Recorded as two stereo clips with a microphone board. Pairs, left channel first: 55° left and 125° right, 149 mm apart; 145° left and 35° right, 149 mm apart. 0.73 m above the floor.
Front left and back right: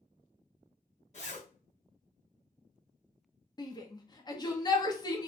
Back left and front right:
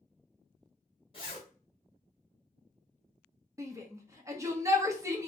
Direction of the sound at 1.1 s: 95° left.